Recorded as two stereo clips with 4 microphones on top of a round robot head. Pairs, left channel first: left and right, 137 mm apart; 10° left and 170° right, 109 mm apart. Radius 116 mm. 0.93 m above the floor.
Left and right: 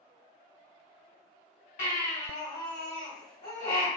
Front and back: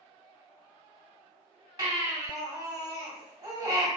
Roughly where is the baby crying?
Behind left.